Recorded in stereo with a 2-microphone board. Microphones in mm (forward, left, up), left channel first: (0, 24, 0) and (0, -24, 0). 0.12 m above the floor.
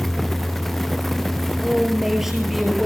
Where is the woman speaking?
5° right (ahead or behind), 2.5 m.